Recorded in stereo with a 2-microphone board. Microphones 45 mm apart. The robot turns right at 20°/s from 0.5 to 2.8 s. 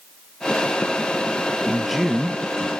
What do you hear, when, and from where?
1.7 s a man speaking: centre (ahead or behind), 0.5 m; by 2.7 s 5° right (ahead or behind), 0.5 m